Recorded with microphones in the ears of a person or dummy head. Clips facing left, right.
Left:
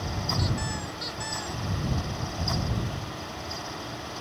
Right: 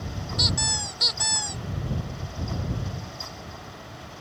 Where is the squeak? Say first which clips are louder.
Left 1 dB; 55° right (ahead or behind).